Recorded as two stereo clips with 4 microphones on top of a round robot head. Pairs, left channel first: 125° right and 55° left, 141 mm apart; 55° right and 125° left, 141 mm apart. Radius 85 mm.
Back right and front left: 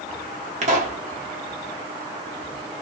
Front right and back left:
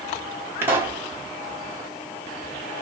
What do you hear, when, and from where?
0.6 s a pop: 55° left, 1.4 m